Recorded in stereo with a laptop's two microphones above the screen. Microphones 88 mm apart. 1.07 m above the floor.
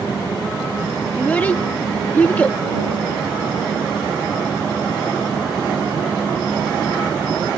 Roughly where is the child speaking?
Left.